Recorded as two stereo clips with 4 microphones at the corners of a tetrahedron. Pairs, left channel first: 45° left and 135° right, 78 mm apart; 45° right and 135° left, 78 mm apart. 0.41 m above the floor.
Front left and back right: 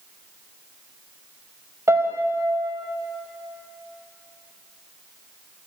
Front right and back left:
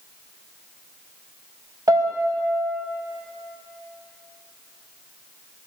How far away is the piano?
About 0.6 m.